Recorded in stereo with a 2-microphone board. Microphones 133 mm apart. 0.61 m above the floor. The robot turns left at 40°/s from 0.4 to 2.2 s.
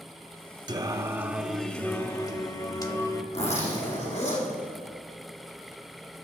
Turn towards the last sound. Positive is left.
turn(degrees=60)  # may be behind; listen again after turning